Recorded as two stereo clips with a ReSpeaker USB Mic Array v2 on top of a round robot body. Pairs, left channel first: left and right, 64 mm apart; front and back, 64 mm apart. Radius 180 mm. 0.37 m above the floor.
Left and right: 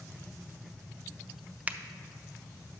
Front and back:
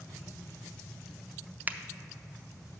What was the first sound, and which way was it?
A finger snap, 140° right.